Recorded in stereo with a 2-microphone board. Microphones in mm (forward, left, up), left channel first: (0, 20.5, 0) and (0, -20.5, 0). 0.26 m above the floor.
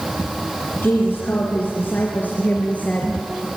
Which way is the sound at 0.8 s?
60° left (ahead or behind).